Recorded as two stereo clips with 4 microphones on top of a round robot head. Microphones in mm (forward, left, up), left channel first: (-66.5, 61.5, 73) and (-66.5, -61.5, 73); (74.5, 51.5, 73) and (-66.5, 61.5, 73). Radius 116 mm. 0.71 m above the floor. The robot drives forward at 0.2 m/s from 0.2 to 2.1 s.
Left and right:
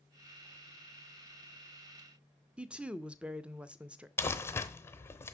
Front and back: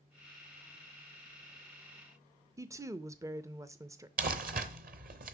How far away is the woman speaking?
About 0.5 m.